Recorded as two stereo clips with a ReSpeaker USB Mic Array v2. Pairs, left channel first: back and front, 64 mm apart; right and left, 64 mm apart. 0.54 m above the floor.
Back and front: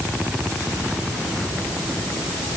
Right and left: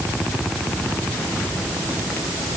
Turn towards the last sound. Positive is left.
No sound to turn to.